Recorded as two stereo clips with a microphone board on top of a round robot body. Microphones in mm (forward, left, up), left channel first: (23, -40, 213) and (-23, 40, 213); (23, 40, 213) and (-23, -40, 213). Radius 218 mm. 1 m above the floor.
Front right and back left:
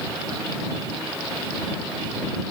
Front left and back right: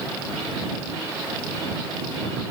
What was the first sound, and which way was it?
Only background noise.